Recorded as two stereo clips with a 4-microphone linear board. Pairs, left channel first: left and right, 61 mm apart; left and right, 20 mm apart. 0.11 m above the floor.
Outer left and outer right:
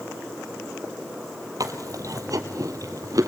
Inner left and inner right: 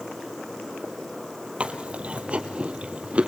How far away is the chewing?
About 1.6 m.